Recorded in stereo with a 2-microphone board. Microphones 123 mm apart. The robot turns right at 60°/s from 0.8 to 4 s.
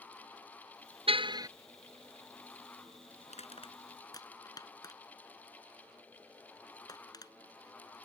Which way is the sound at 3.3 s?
75° left (ahead or behind).